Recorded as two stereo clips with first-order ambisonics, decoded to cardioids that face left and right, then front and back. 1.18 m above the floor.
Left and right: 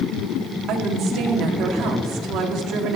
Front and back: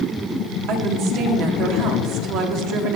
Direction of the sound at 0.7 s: 135° right.